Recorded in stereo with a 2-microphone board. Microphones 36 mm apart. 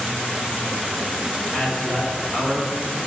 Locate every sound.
1.5 s a man speaking: 30° left (ahead or behind), 2.5 m